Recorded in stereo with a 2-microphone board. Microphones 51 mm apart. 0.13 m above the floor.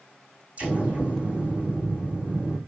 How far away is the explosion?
About 6 m.